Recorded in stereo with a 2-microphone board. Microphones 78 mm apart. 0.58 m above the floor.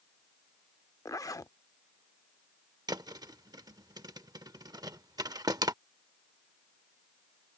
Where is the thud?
60° right (ahead or behind).